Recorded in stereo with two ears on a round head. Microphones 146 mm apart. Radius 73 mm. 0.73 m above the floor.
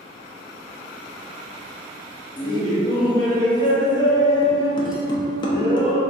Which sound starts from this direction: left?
Laughter, at 2.4 s.